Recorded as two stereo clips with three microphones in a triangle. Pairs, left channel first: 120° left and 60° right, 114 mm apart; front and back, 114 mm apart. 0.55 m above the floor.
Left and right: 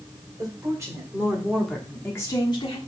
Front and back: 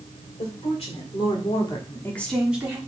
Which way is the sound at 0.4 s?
5° right.